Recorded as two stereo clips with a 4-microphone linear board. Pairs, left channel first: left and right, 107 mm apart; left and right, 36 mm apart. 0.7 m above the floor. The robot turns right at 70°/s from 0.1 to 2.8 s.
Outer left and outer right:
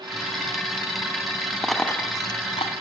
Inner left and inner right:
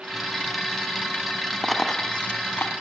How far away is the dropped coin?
About 1.7 m.